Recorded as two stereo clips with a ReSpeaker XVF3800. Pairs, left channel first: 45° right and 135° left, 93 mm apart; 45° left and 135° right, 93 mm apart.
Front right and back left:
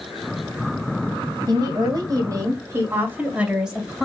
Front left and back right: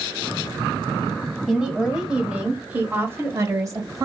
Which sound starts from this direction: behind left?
A woman speaking, at 1.5 s.